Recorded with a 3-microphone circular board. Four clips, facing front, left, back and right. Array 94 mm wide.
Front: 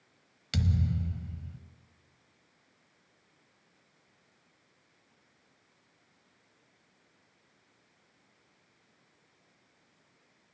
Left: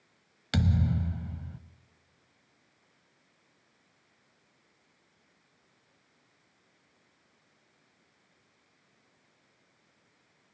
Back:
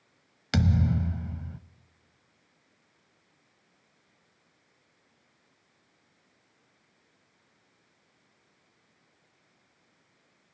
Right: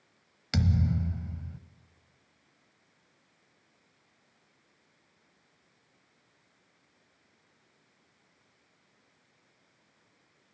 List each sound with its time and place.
0.5 s a thud: 165° left, 1.0 m